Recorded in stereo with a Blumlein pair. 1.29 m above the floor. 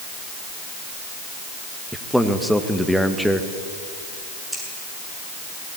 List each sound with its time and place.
1.9 s a man speaking: straight ahead, 1.8 m
4.5 s scissors: 10° right, 8 m